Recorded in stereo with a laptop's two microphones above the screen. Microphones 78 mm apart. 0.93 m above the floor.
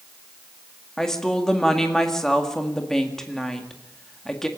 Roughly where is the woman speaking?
Centre.